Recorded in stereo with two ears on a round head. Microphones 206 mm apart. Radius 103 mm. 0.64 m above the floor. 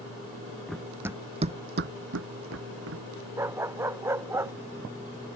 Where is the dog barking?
10° right (ahead or behind).